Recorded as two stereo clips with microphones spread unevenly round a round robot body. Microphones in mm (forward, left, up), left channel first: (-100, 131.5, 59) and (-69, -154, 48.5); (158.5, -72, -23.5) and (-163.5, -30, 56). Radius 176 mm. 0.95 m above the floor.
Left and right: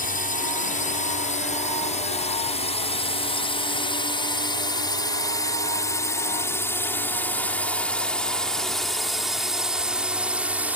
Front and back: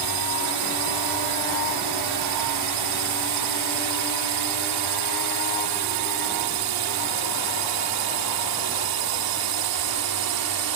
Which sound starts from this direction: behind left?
A drone, at 0.0 s.